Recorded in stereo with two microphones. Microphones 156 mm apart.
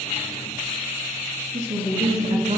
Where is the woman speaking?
45° right (ahead or behind), 3.5 m.